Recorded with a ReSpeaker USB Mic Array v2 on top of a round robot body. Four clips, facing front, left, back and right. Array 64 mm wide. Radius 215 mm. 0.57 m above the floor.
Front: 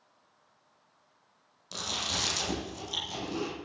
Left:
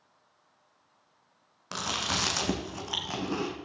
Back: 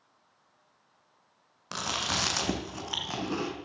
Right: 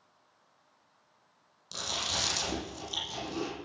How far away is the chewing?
About 2.5 m.